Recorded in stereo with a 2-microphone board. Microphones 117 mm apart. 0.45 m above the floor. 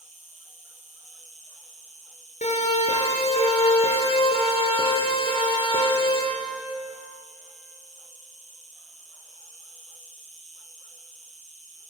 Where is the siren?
75° left (ahead or behind), 6.5 m; by 6.2 s 40° left (ahead or behind), 10 m.